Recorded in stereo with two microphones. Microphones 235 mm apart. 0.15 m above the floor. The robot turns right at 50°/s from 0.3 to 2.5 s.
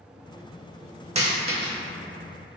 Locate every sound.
1.1 s a dropped coin: 30° right (ahead or behind), 0.6 m; by 1.7 s 55° right (ahead or behind), 0.6 m